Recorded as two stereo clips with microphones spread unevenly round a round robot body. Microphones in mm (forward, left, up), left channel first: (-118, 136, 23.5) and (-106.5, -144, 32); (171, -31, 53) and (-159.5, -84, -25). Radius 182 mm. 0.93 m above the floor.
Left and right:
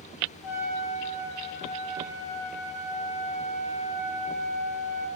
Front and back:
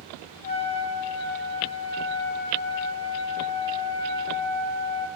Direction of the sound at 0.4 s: 85° left.